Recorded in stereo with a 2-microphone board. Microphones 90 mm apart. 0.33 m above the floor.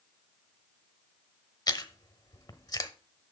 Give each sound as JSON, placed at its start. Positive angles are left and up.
{"t": 1.7, "sound": "chewing", "side_deg": 40, "distance_m": 0.9}